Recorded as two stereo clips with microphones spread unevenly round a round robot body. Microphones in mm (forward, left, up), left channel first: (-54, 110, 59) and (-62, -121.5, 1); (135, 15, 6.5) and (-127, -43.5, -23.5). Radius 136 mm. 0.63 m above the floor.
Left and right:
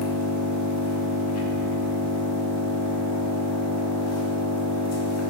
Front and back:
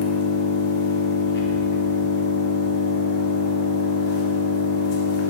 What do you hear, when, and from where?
0.0 s an engine running: 65° left, 1.2 m